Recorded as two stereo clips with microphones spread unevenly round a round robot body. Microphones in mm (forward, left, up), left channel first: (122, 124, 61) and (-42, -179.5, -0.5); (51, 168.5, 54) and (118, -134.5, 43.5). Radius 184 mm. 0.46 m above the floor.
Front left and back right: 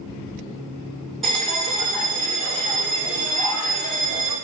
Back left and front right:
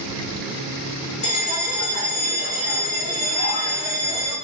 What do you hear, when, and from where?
1.2 s a bell: 160° left, 1.8 m